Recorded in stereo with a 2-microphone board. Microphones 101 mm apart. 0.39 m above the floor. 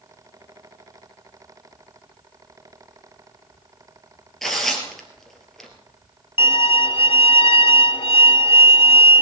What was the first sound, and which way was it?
Tearing paper, centre (ahead or behind).